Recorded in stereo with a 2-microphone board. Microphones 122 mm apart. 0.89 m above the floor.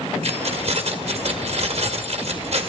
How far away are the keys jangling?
About 1.8 m.